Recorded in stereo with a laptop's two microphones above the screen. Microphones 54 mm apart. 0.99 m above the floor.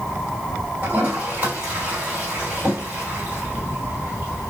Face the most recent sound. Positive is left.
turn(degrees=-50)  # may be behind; listen again after turning